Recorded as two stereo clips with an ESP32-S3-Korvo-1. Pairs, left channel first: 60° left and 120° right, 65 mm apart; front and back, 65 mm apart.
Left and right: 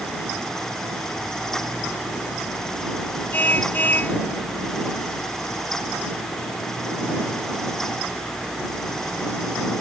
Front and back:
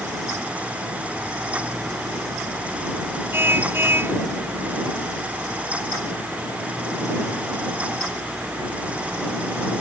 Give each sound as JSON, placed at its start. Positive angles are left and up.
{"t": 3.3, "sound": "a car horn", "azimuth_deg": 125}